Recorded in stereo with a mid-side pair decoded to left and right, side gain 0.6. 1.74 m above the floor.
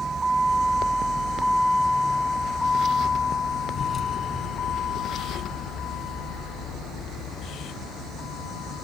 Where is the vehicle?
25° right; by 8.8 s 65° left.